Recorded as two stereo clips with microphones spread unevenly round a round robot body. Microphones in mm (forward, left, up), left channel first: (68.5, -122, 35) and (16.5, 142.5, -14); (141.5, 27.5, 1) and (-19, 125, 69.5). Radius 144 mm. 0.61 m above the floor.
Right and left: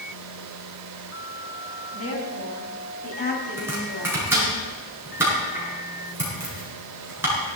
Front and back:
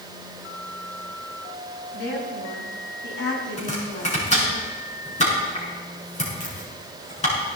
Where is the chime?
I don't hear a chime.